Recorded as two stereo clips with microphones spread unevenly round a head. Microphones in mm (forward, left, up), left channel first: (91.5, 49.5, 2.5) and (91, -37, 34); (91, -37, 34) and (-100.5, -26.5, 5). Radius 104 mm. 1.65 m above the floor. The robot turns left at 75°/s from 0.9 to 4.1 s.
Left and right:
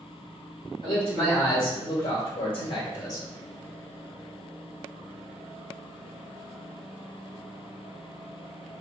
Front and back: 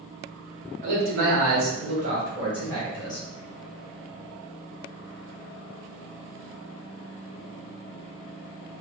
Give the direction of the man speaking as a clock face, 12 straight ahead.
5 o'clock.